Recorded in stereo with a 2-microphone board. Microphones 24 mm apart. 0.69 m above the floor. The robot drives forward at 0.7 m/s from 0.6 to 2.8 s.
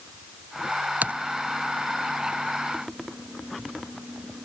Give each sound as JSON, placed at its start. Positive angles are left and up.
{"t": 1.0, "sound": "typing on a keyboard", "side_deg": -70}